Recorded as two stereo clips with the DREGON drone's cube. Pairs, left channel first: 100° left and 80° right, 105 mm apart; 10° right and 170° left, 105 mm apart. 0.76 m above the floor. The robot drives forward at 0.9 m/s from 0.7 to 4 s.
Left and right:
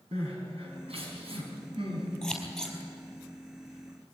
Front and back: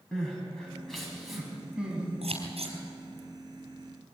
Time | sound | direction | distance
0.1 | crying | 95° right | 5 m
2.2 | scissors | 175° right | 4 m